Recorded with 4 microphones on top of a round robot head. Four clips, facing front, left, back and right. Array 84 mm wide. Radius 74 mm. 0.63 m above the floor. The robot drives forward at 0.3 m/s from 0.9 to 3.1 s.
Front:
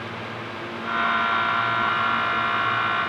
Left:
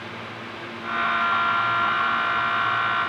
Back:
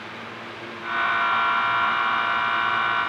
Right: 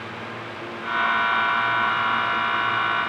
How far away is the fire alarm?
I don't hear a fire alarm.